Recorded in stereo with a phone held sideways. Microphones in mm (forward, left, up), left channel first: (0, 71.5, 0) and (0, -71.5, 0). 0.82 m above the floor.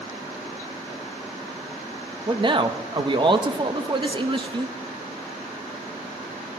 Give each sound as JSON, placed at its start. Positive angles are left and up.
{"t": 2.3, "sound": "a man speaking", "side_deg": -35, "distance_m": 0.8}